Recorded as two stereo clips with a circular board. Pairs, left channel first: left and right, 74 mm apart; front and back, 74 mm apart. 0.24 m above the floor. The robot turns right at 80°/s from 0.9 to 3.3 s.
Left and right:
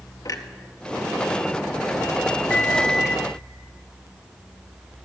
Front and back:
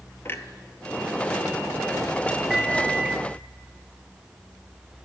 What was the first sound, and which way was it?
A clunk, 55° left.